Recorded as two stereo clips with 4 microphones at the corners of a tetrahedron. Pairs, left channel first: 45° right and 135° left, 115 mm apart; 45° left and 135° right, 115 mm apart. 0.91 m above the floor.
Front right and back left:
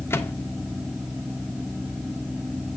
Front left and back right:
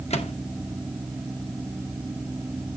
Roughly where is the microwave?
Ahead left.